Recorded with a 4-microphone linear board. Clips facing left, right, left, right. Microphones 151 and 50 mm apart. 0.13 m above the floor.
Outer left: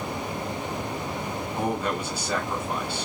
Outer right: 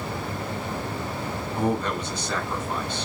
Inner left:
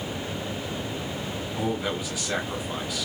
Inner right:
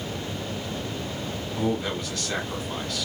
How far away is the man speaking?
About 1.5 m.